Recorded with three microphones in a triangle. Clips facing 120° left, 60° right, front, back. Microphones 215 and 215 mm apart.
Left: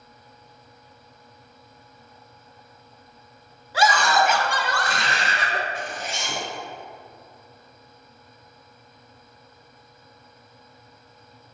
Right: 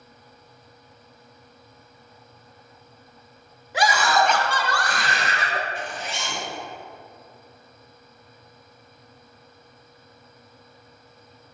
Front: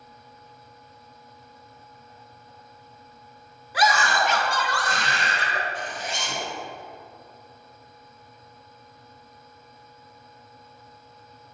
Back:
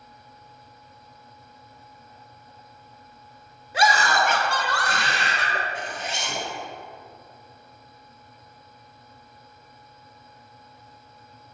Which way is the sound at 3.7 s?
125° right.